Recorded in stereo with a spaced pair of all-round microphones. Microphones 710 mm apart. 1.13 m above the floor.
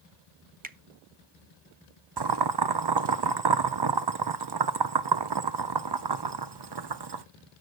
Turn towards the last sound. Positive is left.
turn(degrees=-40)  # may be behind; listen again after turning